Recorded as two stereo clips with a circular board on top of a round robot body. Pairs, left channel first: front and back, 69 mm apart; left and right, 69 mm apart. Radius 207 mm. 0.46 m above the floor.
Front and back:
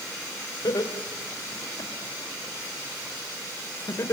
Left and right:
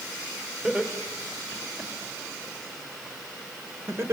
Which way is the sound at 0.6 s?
15° right.